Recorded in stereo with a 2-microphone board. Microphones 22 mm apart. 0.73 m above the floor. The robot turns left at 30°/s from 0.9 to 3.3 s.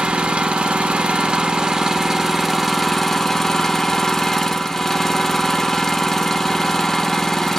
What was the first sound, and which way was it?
An engine running, 115° right.